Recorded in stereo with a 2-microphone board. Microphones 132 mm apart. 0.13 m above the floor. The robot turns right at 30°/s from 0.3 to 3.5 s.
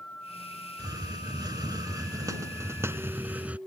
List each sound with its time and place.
0.8 s a hiss: 105° right; by 3.6 s 20° right